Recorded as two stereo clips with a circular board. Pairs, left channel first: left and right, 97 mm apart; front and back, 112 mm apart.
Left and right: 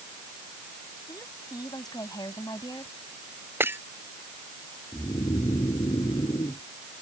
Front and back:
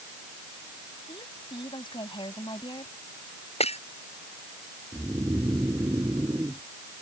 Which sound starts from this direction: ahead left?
A woman speaking, at 1.1 s.